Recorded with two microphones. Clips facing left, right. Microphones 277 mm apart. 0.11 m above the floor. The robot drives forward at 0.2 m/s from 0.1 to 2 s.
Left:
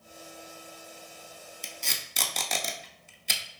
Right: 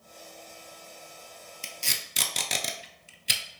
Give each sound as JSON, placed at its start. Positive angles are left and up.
{"t": 1.6, "sound": "tape being pulled", "side_deg": -35, "distance_m": 0.5}